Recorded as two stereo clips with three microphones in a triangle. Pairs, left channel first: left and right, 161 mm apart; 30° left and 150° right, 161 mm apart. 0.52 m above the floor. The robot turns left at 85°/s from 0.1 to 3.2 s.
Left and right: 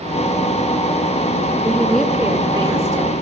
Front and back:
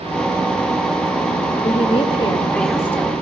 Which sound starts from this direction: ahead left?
A woman speaking, at 1.6 s.